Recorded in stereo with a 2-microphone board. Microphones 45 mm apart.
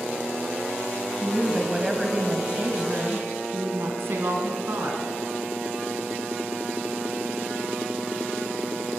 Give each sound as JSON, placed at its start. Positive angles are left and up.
{"t": 1.2, "sound": "a woman speaking", "side_deg": 5, "distance_m": 2.0}